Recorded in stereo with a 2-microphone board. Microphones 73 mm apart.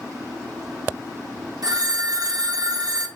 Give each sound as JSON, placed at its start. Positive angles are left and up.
{"t": 1.6, "sound": "a phone ringing", "side_deg": -60, "distance_m": 0.9}